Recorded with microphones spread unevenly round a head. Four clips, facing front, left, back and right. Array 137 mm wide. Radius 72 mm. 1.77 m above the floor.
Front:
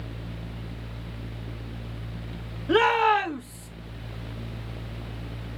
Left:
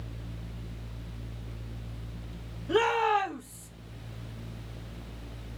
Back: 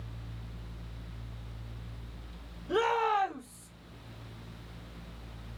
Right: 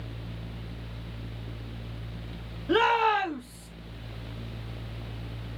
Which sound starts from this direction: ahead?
A shout, at 2.7 s.